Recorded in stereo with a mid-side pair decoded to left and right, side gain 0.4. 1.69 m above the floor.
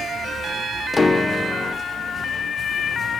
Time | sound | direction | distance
0.9 | a piano | 25° left | 0.8 m